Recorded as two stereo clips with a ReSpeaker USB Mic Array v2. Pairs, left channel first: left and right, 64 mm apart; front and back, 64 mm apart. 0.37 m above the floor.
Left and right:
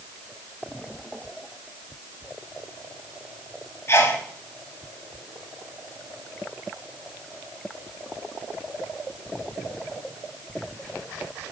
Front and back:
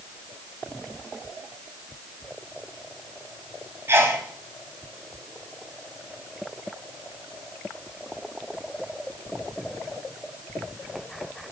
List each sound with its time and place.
3.9 s a sneeze: 135° left, 2.5 m